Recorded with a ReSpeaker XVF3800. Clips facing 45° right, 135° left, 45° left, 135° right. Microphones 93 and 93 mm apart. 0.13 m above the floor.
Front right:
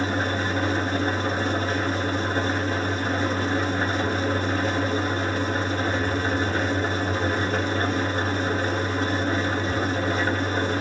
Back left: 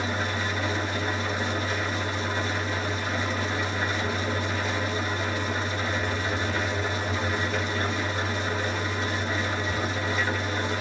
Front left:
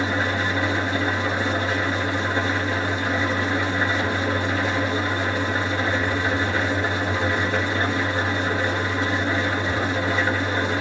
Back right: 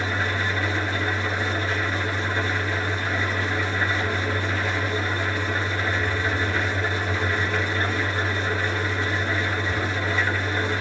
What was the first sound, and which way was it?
An engine running, 20° right.